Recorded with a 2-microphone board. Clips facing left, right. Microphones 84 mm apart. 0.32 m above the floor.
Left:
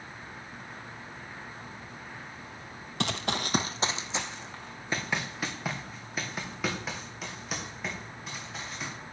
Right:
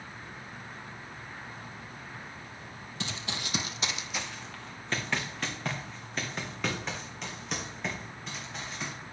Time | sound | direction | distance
3.0 | running footsteps | 65° left (ahead or behind) | 0.6 m